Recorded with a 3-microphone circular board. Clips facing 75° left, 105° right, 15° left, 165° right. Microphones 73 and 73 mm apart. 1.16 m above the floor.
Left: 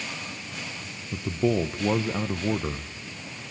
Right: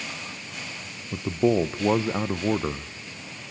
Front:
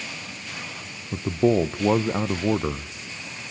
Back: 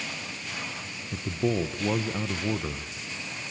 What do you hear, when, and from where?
1.1 s a man speaking: 35° right, 0.5 m